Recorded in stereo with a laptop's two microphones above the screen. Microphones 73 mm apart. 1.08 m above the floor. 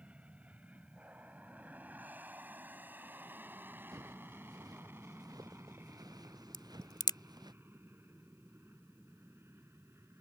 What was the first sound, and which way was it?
An aircraft, 15° right (ahead or behind).